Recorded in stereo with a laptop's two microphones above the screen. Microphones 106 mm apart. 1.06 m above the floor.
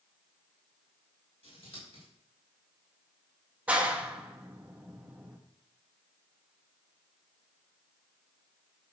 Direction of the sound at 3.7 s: 10° right (ahead or behind).